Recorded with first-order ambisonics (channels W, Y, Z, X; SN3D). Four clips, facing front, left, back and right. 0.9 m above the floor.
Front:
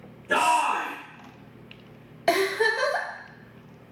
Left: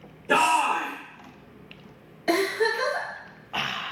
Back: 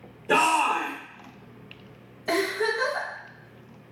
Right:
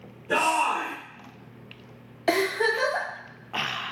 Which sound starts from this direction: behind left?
A shout, at 0.3 s.